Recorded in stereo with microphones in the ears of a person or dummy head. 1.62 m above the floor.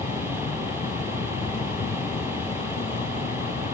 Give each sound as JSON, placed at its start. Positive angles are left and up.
{"t": 0.0, "sound": "an insect", "side_deg": 35}